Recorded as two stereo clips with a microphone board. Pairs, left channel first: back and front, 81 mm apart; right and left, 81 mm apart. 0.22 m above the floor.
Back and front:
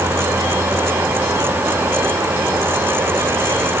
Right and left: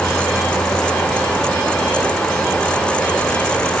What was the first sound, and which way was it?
Only background noise.